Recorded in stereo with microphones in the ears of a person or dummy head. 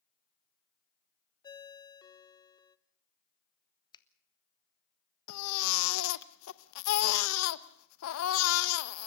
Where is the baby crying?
80° left, 0.8 m.